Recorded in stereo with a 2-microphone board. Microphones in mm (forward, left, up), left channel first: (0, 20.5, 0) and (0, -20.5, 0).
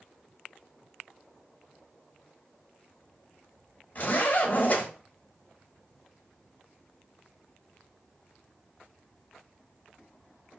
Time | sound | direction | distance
4.0 | a zipper | 40° left (ahead or behind) | 1.5 m